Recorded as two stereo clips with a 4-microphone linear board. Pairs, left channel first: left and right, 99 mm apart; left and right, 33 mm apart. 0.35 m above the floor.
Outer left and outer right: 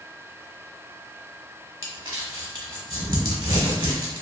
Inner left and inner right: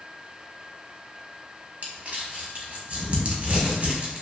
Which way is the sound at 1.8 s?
55° right (ahead or behind).